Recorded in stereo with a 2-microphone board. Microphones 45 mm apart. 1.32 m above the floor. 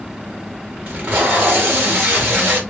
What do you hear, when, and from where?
0.9 s tape being pulled: 45° right (ahead or behind), 2.0 m